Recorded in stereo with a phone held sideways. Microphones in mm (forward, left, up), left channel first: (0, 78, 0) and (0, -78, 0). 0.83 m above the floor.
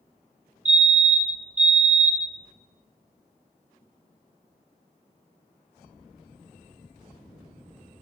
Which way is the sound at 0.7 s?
55° right (ahead or behind).